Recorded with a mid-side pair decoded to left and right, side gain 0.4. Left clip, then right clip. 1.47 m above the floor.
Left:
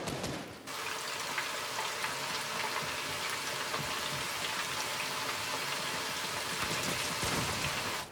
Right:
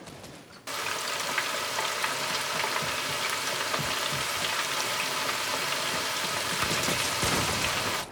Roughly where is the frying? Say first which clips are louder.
Right 7 dB; ahead right.